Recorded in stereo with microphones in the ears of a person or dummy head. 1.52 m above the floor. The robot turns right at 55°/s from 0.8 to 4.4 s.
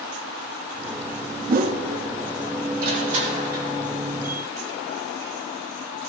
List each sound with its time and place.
1.5 s a whoosh: 45° right (ahead or behind), 0.5 m; by 1.8 s 30° right (ahead or behind), 0.5 m
2.8 s crushing: 65° right, 1.6 m; by 3.7 s 15° right, 1.6 m